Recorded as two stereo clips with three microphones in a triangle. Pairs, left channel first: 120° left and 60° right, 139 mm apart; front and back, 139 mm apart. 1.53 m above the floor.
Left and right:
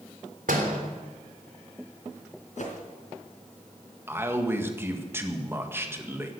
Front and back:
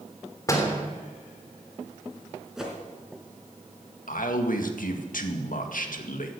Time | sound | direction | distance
0.5 | a door slam | 65° right | 3 m
2.6 | a whoosh | 95° left | 4 m
4.1 | a man speaking | 15° left | 1.9 m